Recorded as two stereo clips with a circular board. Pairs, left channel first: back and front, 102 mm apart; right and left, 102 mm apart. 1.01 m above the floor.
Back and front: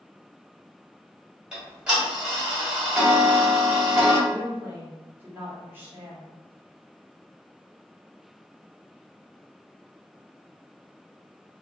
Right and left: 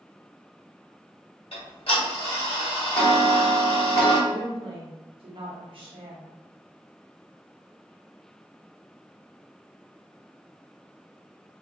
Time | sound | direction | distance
1.5 | ticking | 80° right | 1.5 m
4.3 | a woman speaking | 70° left | 1.1 m